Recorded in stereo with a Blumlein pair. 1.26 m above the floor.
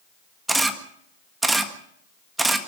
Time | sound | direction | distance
0.5 | a camera shutter | 10° right | 1.5 m